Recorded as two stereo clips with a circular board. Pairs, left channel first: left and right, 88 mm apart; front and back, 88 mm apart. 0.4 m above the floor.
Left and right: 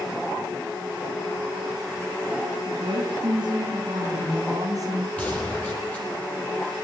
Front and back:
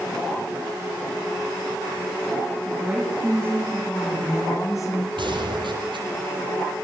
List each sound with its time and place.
2.6 s a woman speaking: 90° right, 4.5 m; by 5.1 s 40° right, 3.5 m
5.2 s a gunshot: 165° left, 7 m